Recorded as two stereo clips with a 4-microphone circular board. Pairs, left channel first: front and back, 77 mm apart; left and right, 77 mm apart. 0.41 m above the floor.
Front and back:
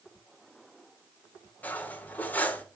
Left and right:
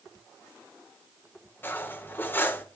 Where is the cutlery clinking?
50° left, 0.6 m.